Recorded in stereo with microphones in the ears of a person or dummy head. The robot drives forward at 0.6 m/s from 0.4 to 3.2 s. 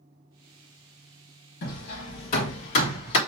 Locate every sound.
1.6 s hammering: 55° left (ahead or behind), 1.4 m; by 3.2 s 40° left (ahead or behind), 1.8 m